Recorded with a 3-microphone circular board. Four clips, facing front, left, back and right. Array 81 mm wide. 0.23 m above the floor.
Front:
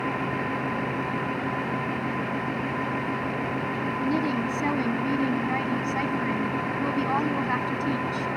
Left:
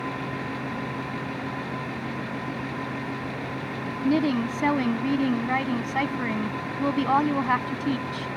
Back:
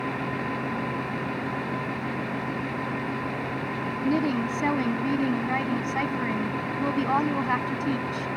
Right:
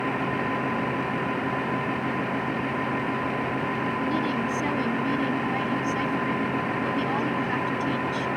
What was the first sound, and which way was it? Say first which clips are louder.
A woman speaking: left 8 dB, back 2 dB; 105° left.